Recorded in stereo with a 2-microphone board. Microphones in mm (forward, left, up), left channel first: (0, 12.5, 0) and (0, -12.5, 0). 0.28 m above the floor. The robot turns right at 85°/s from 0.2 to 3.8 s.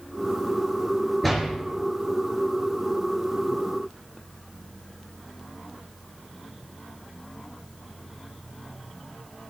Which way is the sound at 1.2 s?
5° left (ahead or behind).